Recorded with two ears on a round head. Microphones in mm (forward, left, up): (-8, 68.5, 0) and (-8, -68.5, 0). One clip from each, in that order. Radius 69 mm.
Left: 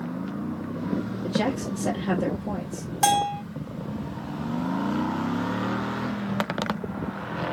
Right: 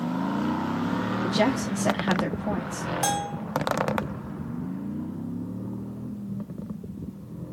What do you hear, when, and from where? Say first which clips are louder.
1.2 s a woman speaking: right 2 dB; 45° right (ahead or behind), 0.9 m
3.0 s a bell: left 8 dB; 20° left (ahead or behind), 0.6 m